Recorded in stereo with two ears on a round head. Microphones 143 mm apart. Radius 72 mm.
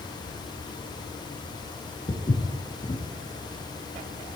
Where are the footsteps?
30° left (ahead or behind), 0.9 m.